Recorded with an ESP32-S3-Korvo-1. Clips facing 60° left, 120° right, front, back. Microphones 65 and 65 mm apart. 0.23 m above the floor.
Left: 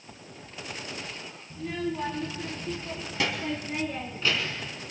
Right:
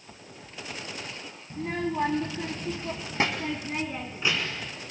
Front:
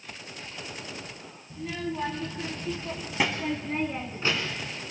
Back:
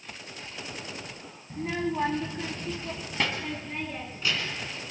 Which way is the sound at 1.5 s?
150° right.